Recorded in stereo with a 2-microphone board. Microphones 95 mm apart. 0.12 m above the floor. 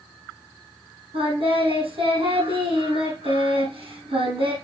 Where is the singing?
70° right (ahead or behind), 4.5 m.